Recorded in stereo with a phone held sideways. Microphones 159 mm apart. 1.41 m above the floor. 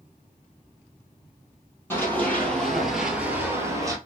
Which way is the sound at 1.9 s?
15° left (ahead or behind).